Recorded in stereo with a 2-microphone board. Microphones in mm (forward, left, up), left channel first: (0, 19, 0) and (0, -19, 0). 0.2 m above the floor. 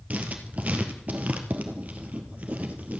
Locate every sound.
0.1 s writing: 40° right (ahead or behind), 1.9 m